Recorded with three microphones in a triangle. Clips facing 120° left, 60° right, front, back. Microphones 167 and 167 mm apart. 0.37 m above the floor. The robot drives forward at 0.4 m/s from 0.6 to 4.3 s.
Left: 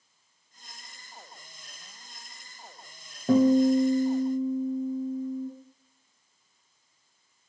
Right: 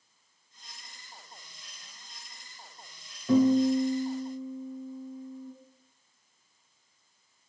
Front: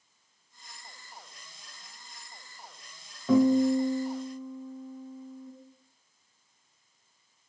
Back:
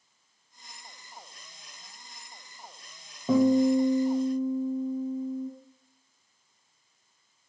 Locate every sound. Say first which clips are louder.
3.3 s a guitar: left 2 dB, back 1 dB; 115° left, 1.2 m; by 5.5 s 135° left, 1.4 m